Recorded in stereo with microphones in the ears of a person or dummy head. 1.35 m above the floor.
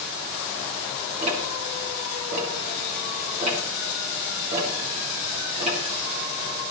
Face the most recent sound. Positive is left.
turn(degrees=-35)  # may be behind; listen again after turning